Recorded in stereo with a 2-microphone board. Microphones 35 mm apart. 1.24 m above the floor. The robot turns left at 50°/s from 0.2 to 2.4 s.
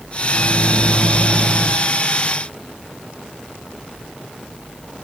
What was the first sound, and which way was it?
A microwave, 10° left.